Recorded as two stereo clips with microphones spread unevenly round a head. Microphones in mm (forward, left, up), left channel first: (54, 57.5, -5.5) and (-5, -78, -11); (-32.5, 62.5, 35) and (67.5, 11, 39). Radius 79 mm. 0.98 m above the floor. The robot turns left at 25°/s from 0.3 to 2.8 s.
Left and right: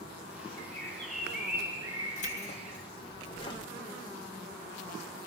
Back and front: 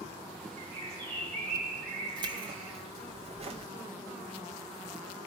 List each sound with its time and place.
0.6 s a bird: 5° right, 7.5 m; by 2.8 s 60° right, 7.5 m
2.2 s keys jangling: 25° left, 1.9 m; by 3.7 s 10° left, 1.9 m